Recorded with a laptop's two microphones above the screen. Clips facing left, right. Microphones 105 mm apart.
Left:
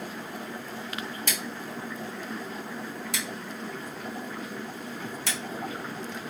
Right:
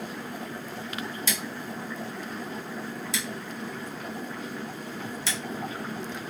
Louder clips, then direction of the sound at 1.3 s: Right 1 dB; 55° left (ahead or behind).